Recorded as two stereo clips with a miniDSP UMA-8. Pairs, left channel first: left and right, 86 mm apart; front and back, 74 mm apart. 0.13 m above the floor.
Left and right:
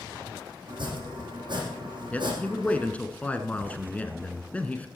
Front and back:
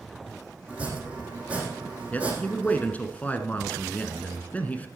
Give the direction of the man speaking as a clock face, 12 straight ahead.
11 o'clock.